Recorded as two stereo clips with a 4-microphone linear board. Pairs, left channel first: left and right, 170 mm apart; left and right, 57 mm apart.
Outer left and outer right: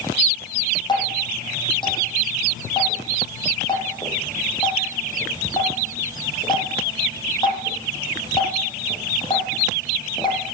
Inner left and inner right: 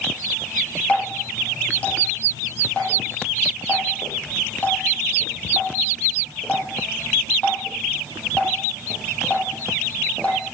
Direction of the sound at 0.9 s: 25° left (ahead or behind).